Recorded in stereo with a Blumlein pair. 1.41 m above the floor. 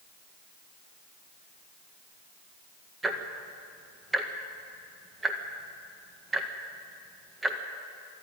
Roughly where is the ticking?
Ahead.